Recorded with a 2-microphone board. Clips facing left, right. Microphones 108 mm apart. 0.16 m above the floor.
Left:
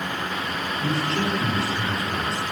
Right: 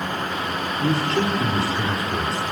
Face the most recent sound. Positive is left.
turn(degrees=-40)  # may be behind; listen again after turning